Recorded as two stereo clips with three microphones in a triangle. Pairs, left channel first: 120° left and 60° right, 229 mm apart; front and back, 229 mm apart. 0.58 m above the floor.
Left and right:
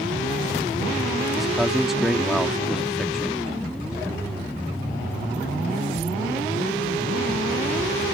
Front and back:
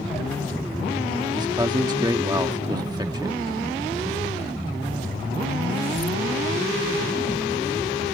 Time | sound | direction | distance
1.3 | a man speaking | 145° right | ?